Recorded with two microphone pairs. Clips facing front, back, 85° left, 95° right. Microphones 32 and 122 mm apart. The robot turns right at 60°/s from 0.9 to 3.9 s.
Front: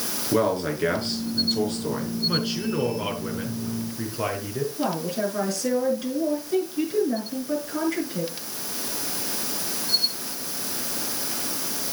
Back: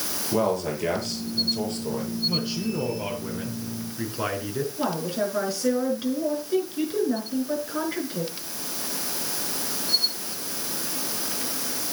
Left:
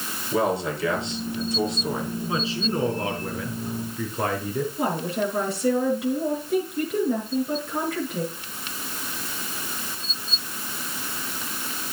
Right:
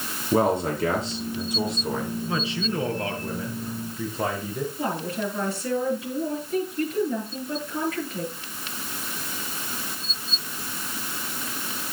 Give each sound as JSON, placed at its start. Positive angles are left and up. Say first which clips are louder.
{"t": 0.3, "sound": "a man speaking", "louder": "front 2 dB, right 2 dB", "azimuth_deg": -50, "distance_m": 5.0}
{"t": 2.3, "sound": "a man speaking", "louder": "front 2 dB, left 3 dB", "azimuth_deg": 15, "distance_m": 5.0}
{"t": 4.8, "sound": "a woman speaking", "louder": "even, left 3 dB", "azimuth_deg": 110, "distance_m": 6.5}